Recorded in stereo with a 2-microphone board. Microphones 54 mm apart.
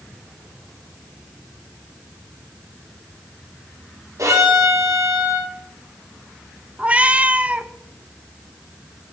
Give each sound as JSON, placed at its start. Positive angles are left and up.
{"t": 4.2, "sound": "a violin", "side_deg": -85, "distance_m": 4.5}
{"t": 6.8, "sound": "a cat meowing", "side_deg": -25, "distance_m": 0.7}